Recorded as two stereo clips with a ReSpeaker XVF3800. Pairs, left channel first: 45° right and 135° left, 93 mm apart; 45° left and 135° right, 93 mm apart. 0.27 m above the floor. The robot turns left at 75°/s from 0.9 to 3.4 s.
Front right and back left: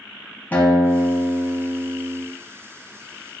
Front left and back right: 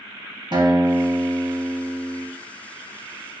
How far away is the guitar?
About 0.7 m.